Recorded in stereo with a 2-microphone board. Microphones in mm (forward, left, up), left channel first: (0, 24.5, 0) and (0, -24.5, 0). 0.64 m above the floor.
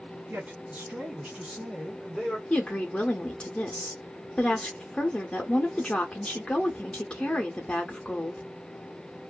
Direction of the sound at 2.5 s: 20° left (ahead or behind).